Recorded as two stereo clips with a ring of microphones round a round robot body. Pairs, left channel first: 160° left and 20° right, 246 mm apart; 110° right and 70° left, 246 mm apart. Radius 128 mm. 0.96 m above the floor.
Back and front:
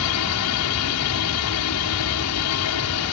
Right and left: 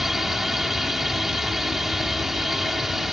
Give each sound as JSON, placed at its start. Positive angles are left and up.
{"t": 0.0, "sound": "a drone", "azimuth_deg": 155}